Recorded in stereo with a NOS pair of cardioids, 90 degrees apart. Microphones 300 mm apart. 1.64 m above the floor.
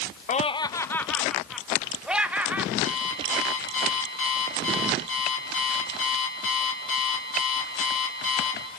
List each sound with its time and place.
0.3 s laughter: 25° left, 0.6 m; by 2.7 s 5° right, 2.5 m
2.8 s an alarm clock: 45° left, 6 m